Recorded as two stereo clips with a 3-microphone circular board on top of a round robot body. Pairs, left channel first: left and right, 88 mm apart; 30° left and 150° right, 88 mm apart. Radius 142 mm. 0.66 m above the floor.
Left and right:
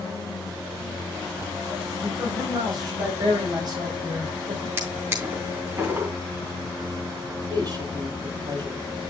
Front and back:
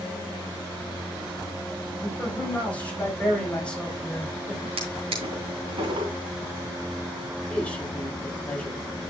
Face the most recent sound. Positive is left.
turn(degrees=-45)